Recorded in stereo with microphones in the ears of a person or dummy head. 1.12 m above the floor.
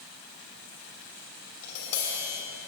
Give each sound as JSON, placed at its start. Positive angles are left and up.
{"t": 1.6, "sound": "tapping", "side_deg": 75, "distance_m": 3.0}